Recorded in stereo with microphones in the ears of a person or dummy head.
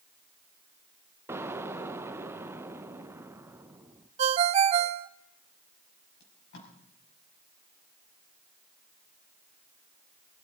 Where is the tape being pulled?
60° left (ahead or behind), 5.5 m.